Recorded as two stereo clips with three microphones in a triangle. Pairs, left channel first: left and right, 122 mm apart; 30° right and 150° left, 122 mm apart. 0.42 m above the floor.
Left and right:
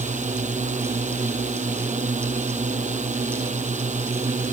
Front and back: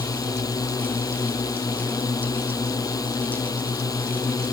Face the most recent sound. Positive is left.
turn(degrees=-90)